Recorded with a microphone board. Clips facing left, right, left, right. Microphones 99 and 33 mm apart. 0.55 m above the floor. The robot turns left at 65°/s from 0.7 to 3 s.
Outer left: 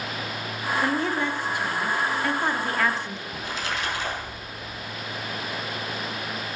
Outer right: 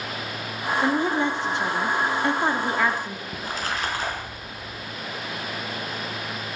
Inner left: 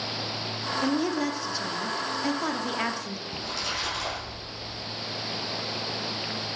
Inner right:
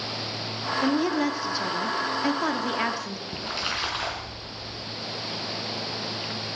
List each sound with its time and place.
0.8 s a woman speaking: 10° right (ahead or behind), 1.2 m; by 3.2 s 5° right (ahead or behind), 1.2 m
3.3 s a splash: 40° right (ahead or behind), 5 m